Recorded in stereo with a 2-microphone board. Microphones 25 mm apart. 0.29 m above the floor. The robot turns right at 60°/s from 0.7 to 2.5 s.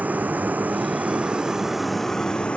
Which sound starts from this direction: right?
A vehicle, at 0.0 s.